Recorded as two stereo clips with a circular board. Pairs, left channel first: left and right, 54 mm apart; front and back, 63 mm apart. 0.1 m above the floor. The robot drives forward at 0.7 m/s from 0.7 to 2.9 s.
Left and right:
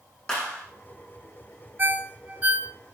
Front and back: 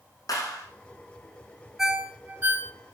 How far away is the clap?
About 5 m.